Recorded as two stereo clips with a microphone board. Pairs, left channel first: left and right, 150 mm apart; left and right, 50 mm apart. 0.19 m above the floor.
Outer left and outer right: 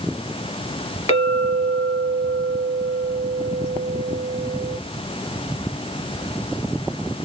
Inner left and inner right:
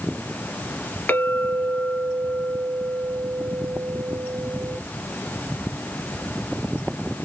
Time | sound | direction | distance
1.1 | a clink | 40° left (ahead or behind) | 1.9 m